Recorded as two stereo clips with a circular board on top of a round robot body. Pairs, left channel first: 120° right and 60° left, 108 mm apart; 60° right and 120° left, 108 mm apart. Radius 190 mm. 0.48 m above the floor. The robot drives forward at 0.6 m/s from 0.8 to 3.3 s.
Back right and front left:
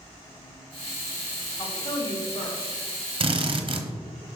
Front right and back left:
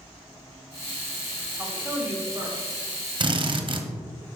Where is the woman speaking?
170° right, 1.4 m; by 2.7 s 175° right, 2.0 m.